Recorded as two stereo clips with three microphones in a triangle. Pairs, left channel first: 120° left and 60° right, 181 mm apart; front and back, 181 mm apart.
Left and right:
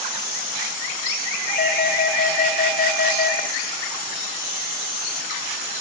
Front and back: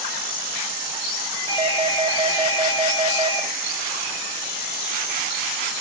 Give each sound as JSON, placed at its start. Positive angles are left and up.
{"t": 1.5, "sound": "a doorbell", "azimuth_deg": 120, "distance_m": 2.0}